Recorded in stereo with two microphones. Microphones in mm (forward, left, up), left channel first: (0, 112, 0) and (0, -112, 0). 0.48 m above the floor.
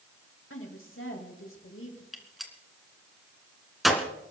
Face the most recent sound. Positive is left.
turn(degrees=0)  # may be behind; listen again after turning